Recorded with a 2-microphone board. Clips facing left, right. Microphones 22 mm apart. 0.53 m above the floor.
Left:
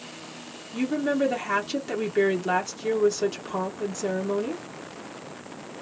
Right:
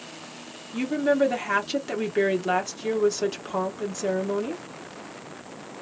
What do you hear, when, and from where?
0.7 s a woman speaking: 10° right (ahead or behind), 0.8 m